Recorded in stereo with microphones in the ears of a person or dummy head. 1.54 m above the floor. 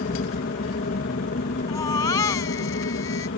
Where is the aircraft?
45° left (ahead or behind).